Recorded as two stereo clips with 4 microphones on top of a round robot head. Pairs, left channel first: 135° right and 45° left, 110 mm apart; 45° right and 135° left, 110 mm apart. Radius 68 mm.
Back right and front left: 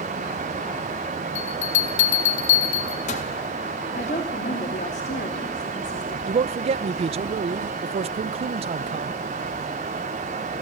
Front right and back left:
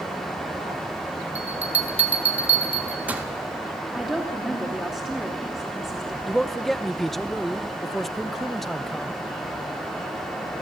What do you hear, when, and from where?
1.4 s a bell: 150° right, 1.3 m
3.9 s a woman speaking: 140° right, 2.5 m
6.3 s a man speaking: 40° left, 0.5 m